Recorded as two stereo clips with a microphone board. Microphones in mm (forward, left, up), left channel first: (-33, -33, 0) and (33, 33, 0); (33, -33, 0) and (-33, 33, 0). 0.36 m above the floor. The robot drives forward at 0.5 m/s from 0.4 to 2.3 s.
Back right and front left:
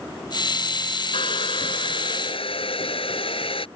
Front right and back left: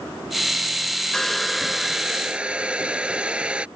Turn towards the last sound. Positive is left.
turn(degrees=-145)